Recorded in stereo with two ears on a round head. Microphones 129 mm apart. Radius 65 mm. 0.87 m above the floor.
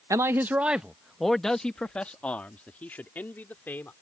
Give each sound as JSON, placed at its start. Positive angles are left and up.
{"t": 0.1, "sound": "a man speaking", "side_deg": -20}